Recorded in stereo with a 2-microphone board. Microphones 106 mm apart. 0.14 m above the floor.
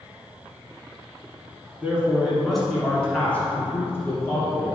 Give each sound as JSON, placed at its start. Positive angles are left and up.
{"t": 1.8, "sound": "a man speaking", "side_deg": -10, "distance_m": 1.6}